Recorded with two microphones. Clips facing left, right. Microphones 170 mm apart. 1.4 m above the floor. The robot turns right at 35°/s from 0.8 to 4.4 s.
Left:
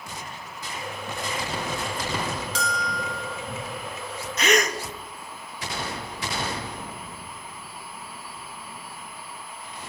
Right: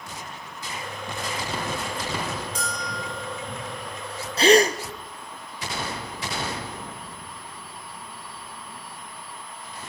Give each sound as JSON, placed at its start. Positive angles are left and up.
{"t": 2.5, "sound": "a bell", "side_deg": 85, "distance_m": 5.0}
{"t": 4.4, "sound": "a gasp", "side_deg": -30, "distance_m": 1.0}